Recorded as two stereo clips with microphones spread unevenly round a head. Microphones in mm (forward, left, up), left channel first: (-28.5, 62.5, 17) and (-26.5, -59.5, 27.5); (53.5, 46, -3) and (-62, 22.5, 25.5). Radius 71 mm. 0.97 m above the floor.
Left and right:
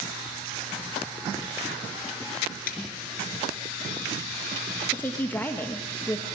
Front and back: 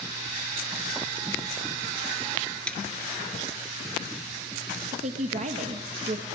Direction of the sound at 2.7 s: 95° left.